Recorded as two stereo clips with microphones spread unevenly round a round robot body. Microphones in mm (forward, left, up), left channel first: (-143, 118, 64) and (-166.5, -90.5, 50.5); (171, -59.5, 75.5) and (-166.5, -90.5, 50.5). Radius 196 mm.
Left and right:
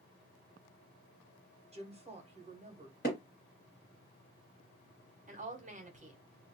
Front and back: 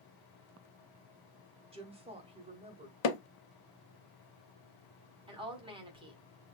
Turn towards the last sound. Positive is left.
turn(degrees=-115)